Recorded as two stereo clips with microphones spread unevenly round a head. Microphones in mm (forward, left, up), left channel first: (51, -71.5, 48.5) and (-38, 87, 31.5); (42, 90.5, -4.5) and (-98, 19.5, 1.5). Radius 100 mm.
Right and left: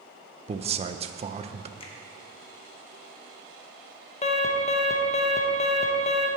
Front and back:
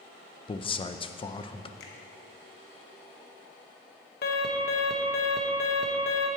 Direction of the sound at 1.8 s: Straight ahead.